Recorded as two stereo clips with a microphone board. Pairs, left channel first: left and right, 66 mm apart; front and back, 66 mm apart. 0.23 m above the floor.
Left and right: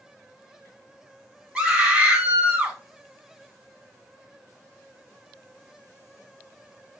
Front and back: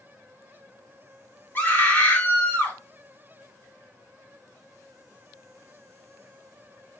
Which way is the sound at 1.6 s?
25° right.